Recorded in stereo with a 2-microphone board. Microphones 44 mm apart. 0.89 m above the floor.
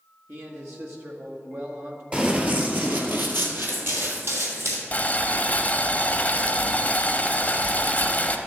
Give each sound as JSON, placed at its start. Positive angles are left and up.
{"t": 0.3, "sound": "a man speaking", "side_deg": -65, "distance_m": 1.7}
{"t": 2.1, "sound": "running footsteps", "side_deg": -30, "distance_m": 1.2}
{"t": 4.9, "sound": "boiling", "side_deg": 35, "distance_m": 0.8}